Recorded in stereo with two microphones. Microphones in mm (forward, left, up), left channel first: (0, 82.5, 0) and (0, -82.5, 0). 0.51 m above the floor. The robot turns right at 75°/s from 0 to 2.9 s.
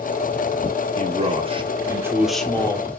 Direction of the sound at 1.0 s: 100° right.